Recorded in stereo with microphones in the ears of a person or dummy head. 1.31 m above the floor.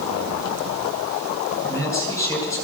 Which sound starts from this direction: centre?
A man speaking, at 1.6 s.